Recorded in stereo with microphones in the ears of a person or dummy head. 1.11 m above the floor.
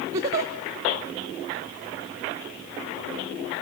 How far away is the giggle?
About 0.6 m.